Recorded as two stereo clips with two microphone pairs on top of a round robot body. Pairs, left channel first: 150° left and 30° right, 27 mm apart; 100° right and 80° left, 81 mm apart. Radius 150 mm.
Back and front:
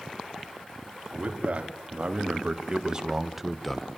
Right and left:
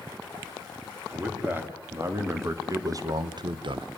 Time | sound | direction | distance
1.1 | a man speaking | 15° left | 4 m